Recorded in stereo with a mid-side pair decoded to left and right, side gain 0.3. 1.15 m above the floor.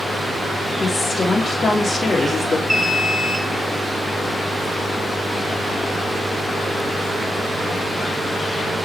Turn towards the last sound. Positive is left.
turn(degrees=-10)